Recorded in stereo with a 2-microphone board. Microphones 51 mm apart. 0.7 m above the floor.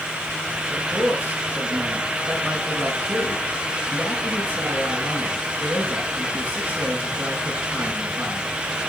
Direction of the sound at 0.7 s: 25° right (ahead or behind).